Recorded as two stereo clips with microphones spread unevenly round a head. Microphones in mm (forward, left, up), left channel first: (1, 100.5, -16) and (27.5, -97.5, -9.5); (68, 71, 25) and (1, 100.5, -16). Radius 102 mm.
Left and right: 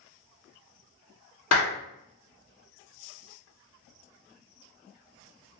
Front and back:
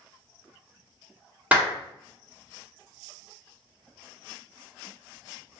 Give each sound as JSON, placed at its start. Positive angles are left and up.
{"t": 1.5, "sound": "a clap", "azimuth_deg": 85, "distance_m": 1.4}